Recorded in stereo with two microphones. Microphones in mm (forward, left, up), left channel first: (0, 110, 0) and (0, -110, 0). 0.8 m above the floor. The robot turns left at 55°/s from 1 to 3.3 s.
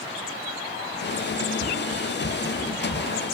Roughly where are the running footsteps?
Left.